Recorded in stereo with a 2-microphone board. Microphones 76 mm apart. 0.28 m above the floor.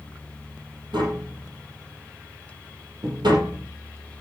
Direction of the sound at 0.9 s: 80° right.